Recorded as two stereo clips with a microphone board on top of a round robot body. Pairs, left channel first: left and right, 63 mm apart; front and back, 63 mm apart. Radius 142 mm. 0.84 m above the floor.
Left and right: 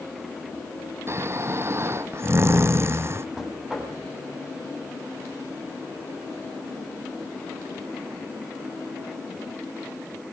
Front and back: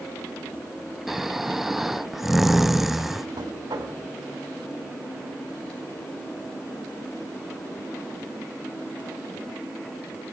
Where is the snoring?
95° right, 0.8 m.